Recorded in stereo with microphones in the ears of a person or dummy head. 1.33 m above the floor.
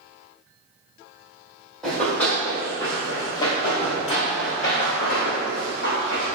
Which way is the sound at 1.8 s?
5° left (ahead or behind).